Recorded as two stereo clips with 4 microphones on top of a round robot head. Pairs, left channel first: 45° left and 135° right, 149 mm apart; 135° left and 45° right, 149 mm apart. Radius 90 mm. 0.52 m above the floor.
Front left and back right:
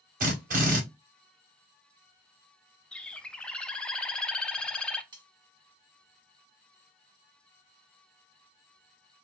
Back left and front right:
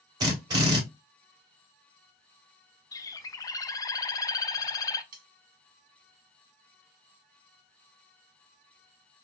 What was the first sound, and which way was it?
A drill, 110° right.